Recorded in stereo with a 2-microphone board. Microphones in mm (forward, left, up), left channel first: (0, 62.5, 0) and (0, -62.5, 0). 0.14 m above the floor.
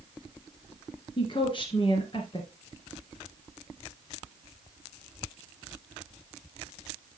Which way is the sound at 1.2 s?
40° left (ahead or behind).